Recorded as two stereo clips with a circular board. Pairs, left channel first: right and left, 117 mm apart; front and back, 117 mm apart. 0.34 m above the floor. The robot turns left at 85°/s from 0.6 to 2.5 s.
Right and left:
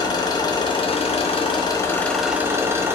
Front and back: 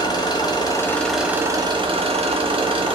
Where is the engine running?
45° right, 0.7 m; by 3.0 s 155° left, 0.7 m.